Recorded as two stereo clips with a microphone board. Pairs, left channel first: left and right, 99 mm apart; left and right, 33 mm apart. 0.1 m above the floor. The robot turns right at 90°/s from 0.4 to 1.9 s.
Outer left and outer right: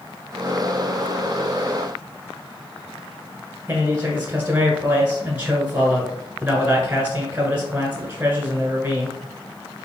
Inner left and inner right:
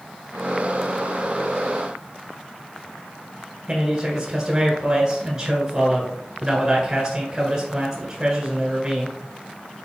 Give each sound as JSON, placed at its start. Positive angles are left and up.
{"t": 3.7, "sound": "a man speaking", "side_deg": -15, "distance_m": 1.2}